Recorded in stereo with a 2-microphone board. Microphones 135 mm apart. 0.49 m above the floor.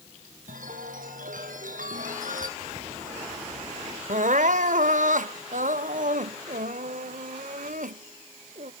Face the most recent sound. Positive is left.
turn(degrees=-70)  # may be behind; listen again after turning